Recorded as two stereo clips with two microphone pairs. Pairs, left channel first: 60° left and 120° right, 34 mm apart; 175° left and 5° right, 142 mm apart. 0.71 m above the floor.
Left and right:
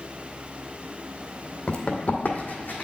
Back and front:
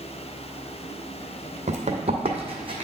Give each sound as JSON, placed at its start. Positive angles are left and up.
{"t": 1.7, "sound": "running footsteps", "azimuth_deg": 15, "distance_m": 1.4}